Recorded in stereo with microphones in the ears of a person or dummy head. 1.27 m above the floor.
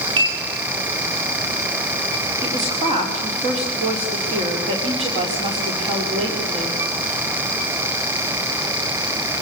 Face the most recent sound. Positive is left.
turn(degrees=-30)  # may be behind; listen again after turning